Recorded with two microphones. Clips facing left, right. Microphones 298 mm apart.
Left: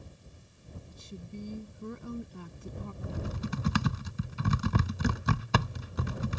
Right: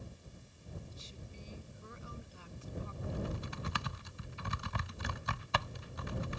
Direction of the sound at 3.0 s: 80° left.